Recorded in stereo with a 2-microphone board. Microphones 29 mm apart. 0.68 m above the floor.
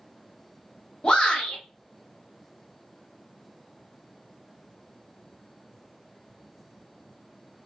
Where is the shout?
35° left (ahead or behind), 1.0 m.